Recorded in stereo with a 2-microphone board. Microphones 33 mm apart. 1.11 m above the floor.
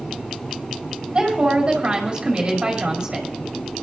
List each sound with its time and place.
1.1 s a woman speaking: 35° right (ahead or behind), 2.5 m